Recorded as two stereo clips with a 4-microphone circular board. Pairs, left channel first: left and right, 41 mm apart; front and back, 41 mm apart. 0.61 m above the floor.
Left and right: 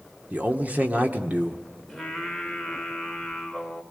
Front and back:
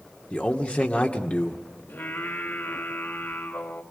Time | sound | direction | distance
0.3 | a man speaking | 50° right | 1.5 m
1.9 | singing | straight ahead | 2.5 m